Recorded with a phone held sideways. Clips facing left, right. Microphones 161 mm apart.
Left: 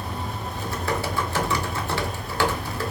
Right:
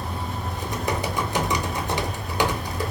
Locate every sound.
0.5 s typing on a keyboard: 20° right (ahead or behind), 0.9 m